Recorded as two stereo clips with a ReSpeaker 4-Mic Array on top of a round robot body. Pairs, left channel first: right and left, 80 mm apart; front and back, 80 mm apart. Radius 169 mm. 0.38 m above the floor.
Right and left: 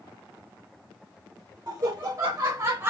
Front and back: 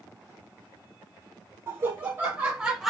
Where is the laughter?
135° left, 1.7 m; by 2.9 s 95° left, 1.0 m.